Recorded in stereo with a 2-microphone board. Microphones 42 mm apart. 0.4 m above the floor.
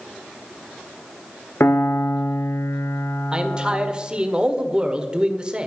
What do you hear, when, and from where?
1.6 s a piano: 80° left, 1.3 m
3.3 s a man speaking: 20° right (ahead or behind), 1.4 m